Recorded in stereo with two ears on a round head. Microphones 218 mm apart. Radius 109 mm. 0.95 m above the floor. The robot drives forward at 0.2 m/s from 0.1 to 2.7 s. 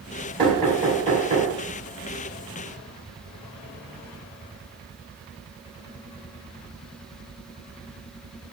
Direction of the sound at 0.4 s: 25° right (ahead or behind).